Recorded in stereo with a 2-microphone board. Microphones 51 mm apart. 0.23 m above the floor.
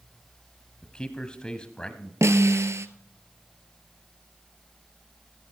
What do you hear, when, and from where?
0.8 s a man speaking: 20° left (ahead or behind), 1.2 m
2.2 s a snare drum: 75° right (ahead or behind), 0.7 m